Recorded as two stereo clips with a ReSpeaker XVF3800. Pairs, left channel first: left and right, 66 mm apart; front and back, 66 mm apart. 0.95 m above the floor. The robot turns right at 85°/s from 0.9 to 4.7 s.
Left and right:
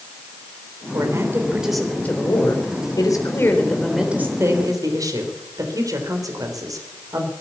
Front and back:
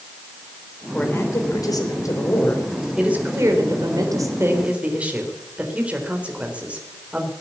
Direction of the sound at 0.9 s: 70° right.